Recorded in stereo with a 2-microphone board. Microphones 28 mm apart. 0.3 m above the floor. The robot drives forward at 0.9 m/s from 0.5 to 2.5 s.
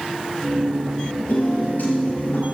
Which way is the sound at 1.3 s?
80° left.